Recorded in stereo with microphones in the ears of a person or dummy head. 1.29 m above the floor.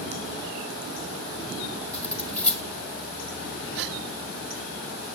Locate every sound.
1.9 s cutlery clinking: 10° left (ahead or behind), 1.7 m
3.8 s a gasp: 70° right (ahead or behind), 1.1 m